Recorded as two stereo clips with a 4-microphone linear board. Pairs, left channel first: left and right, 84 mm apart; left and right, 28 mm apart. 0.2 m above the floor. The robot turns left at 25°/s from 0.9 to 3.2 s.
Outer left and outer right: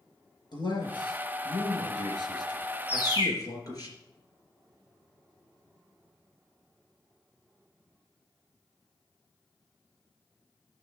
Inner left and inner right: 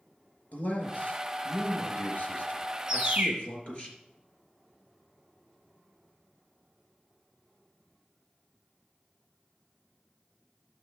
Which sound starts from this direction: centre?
A bird, at 2.9 s.